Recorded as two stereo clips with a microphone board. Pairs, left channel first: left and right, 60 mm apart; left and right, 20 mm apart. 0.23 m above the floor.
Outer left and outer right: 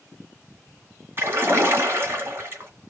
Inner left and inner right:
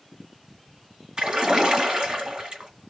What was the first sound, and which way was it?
A splash, 40° right (ahead or behind).